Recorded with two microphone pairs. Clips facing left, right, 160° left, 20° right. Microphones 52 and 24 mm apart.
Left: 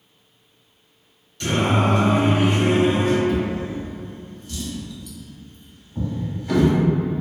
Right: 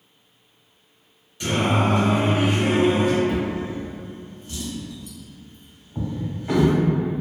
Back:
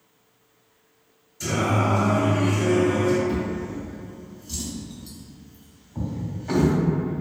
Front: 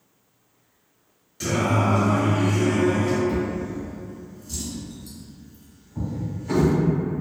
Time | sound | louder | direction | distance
1.4 | singing | left 1 dB, front 1 dB | 20° right | 1.1 m
3.3 | a drawer | left 1 dB, front 1 dB | 140° right | 0.9 m